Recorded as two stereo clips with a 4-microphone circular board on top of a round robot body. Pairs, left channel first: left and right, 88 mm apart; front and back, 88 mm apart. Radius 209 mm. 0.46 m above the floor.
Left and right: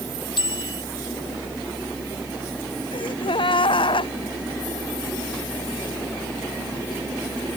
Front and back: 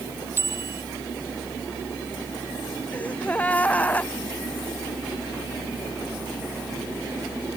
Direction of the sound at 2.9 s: 75° left.